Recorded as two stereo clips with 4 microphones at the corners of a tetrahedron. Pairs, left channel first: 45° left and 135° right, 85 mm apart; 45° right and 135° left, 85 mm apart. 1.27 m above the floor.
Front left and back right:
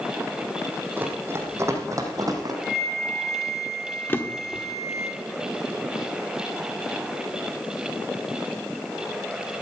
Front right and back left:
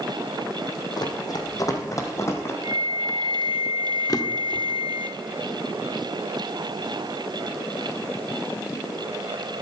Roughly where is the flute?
Behind left.